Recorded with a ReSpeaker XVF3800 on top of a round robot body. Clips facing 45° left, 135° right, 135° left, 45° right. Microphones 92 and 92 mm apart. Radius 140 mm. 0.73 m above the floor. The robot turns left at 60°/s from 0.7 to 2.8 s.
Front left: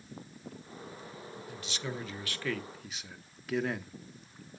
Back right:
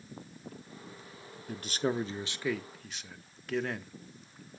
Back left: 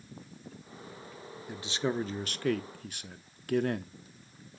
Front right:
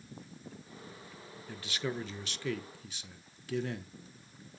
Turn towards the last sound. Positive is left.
turn(degrees=130)